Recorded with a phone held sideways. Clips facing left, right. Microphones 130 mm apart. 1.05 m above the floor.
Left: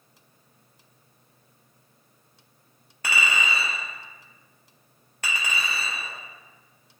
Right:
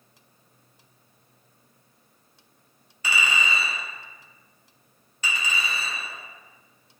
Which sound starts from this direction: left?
A clink, at 3.0 s.